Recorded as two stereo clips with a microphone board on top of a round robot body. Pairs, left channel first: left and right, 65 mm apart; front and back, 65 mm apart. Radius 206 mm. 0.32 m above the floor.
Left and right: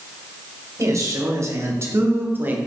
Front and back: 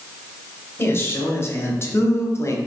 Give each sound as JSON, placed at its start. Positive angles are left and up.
{"t": 0.8, "sound": "a man speaking", "azimuth_deg": -55, "distance_m": 2.5}